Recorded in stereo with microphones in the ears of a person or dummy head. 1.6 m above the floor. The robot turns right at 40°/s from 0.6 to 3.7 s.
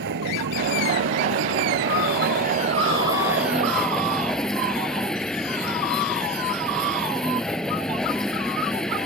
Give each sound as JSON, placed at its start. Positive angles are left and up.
{"t": 0.0, "sound": "a vehicle", "azimuth_deg": -120}